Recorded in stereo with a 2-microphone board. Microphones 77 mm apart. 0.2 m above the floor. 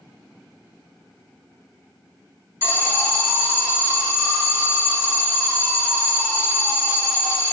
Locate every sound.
2.6 s an alarm: 30° right (ahead or behind), 1.8 m